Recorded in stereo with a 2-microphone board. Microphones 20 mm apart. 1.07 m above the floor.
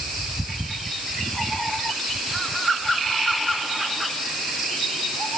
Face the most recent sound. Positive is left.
No sound to turn to.